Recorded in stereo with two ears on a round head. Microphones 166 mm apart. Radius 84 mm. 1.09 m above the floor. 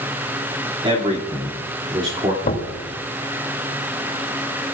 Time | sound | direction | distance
0.8 | a man speaking | 30° right (ahead or behind) | 2.5 m
2.4 | knocking | 50° left (ahead or behind) | 3 m